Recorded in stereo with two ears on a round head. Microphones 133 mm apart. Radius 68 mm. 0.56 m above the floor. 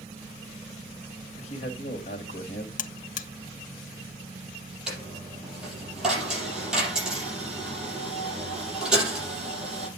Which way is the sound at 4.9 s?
5° right (ahead or behind).